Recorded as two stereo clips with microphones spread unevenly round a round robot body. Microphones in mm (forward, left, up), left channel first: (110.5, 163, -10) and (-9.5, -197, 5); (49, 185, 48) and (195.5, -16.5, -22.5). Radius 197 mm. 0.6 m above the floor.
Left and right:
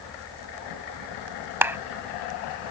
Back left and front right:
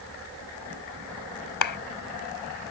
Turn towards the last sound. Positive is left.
turn(degrees=165)